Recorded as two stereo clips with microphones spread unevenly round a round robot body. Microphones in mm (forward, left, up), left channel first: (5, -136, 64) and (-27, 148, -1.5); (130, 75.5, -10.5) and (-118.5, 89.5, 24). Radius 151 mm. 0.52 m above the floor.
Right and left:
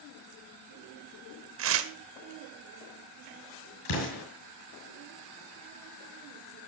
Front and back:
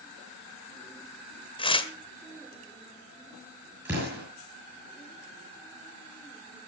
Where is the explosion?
100° right, 6.5 m.